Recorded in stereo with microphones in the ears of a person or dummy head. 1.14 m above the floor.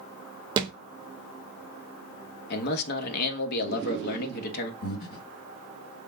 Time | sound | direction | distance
0.6 | a thud | 30° right (ahead or behind) | 0.8 m
2.5 | a man speaking | 55° left (ahead or behind) | 1.1 m
4.8 | breathing | 55° left (ahead or behind) | 2 m